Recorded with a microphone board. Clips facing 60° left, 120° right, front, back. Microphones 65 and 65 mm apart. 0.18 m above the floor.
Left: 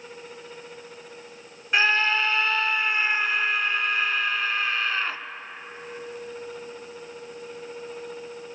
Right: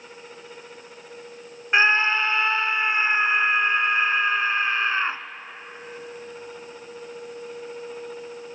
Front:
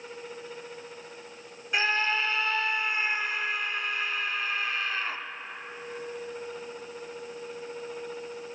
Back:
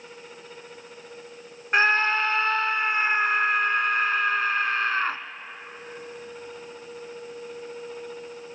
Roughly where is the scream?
Behind.